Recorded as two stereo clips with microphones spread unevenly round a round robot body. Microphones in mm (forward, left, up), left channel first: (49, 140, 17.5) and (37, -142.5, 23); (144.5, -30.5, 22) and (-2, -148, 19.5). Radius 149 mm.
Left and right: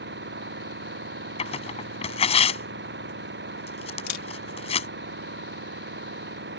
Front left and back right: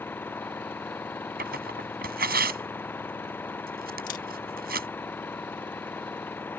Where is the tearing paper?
160° left.